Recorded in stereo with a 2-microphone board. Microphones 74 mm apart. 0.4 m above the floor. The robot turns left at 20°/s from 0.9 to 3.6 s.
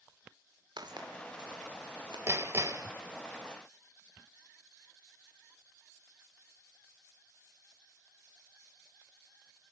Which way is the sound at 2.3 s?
35° right (ahead or behind).